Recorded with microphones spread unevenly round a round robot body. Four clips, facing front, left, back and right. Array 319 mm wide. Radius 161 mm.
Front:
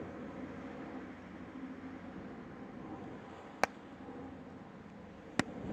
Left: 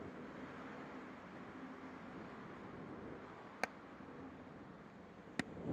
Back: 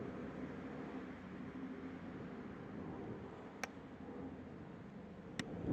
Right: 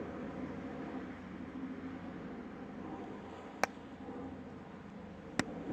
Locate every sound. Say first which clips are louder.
0.0 s an aircraft: right 8 dB, front 2 dB; 70° right
3.6 s hammering: right 8 dB, front 15 dB; 30° right